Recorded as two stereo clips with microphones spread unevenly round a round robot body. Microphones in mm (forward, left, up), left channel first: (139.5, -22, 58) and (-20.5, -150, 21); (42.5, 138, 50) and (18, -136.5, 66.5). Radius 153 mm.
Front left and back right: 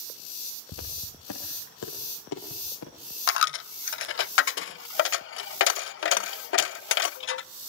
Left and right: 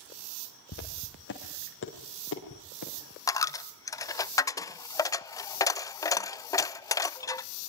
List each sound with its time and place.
0.7 s footsteps: 35° left, 5.5 m; by 2.9 s 40° left, 7.5 m
3.3 s a dropped coin: 5° left, 0.6 m